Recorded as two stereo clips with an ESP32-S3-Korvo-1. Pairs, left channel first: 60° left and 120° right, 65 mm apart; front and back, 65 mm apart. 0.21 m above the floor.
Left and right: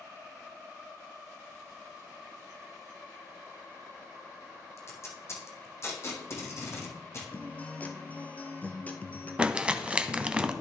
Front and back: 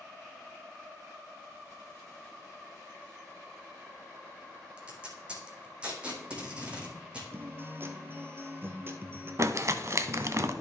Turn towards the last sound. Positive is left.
turn(degrees=175)